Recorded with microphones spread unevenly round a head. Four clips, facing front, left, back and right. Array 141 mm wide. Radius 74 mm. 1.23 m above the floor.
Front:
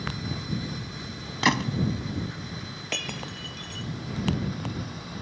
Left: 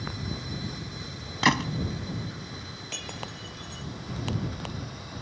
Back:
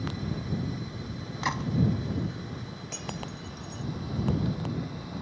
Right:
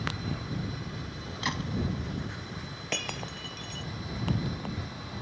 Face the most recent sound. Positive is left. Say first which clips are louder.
# right 4 dB, front 3 dB
turn(degrees=-40)